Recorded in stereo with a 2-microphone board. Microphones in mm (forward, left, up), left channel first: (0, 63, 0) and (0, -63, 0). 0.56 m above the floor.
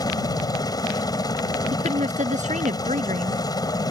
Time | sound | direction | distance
0.0 | a helicopter | 30° left (ahead or behind) | ?
1.7 | a woman speaking | 75° right (ahead or behind) | ?